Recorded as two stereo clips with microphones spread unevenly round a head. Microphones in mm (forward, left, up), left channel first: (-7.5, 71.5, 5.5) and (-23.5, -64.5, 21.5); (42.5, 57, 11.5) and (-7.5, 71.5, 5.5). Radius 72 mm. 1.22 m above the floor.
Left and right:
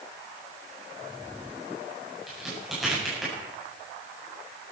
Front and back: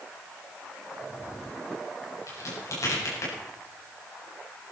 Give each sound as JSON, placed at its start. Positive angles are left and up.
{"t": 2.3, "sound": "a crack", "azimuth_deg": -10, "distance_m": 8.0}